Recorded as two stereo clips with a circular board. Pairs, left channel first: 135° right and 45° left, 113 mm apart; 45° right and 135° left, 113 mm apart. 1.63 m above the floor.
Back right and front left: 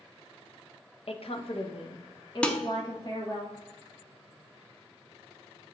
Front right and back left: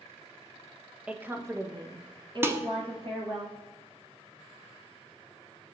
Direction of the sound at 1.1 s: 145° right.